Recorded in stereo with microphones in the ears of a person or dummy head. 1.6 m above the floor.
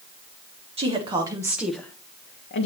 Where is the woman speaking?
30° right (ahead or behind), 1.8 m; by 2.7 s 65° left (ahead or behind), 1.0 m.